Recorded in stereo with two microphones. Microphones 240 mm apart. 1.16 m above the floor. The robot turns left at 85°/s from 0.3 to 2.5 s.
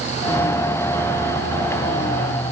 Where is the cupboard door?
I don't hear a cupboard door.